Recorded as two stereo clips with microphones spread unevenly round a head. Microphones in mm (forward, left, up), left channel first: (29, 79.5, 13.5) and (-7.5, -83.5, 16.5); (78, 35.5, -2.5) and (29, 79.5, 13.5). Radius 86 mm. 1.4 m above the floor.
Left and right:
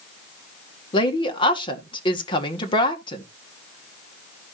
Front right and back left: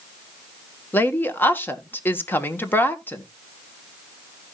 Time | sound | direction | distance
0.9 | a woman speaking | 15° left | 1.6 m